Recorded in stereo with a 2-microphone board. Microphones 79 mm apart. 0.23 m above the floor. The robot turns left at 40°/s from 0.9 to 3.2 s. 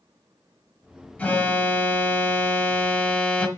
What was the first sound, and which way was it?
An alarm, 20° left (ahead or behind).